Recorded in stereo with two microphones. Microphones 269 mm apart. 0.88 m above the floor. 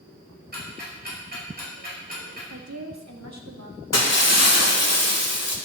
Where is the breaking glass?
70° left (ahead or behind), 1.6 m.